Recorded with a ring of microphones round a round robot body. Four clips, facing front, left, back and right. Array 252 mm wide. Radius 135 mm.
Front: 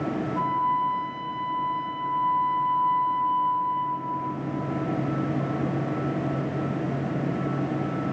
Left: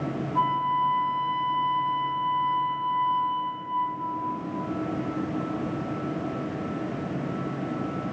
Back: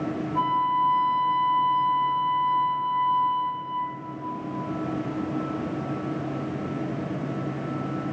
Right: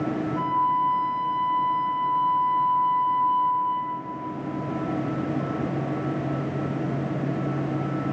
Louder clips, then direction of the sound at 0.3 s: Even, back 2 dB; 120° left.